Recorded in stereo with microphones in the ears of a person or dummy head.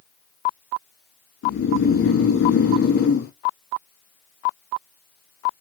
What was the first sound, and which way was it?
Snoring, 50° left (ahead or behind).